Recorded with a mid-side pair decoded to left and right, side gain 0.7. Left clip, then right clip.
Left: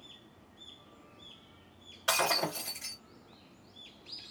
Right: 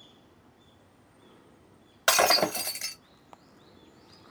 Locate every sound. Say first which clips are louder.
2.1 s breaking glass: right 7 dB; 55° right, 1.3 m